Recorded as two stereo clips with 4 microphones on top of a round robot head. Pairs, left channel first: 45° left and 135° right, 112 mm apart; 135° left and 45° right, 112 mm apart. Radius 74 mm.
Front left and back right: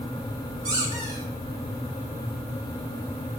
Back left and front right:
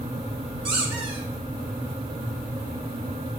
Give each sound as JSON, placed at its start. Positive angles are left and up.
{"t": 0.7, "sound": "a squeak", "azimuth_deg": -80, "distance_m": 4.5}